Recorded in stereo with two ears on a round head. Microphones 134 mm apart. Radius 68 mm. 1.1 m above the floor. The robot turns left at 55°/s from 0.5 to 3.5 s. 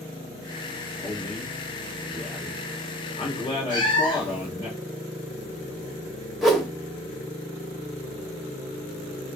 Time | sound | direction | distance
1.0 | a man speaking | 165° left | 1.5 m
3.7 | a cat meowing | 30° left (ahead or behind) | 1.0 m
6.4 | a whoosh | centre (ahead or behind) | 0.6 m